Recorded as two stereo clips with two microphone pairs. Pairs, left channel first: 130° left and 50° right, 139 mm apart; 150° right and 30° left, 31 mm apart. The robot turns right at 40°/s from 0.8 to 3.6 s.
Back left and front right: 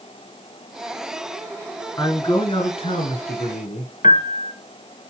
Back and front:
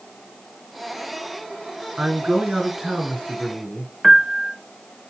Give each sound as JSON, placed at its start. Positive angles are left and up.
{"t": 2.0, "sound": "a man speaking", "azimuth_deg": 65, "distance_m": 2.5}
{"t": 4.0, "sound": "a piano", "azimuth_deg": 115, "distance_m": 0.7}